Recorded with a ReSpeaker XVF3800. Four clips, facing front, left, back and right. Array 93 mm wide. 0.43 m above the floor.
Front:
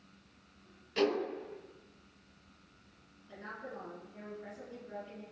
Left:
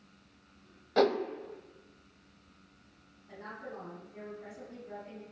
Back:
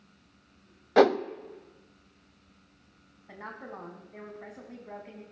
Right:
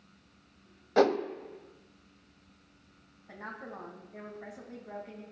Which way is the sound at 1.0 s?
170° right.